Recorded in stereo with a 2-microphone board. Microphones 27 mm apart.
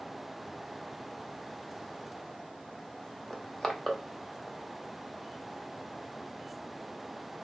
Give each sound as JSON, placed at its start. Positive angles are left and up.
{"t": 3.3, "sound": "crushing", "side_deg": 25, "distance_m": 0.7}